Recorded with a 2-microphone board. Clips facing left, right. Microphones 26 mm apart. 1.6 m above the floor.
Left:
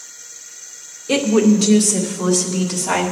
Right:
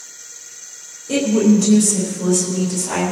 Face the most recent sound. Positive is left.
turn(degrees=85)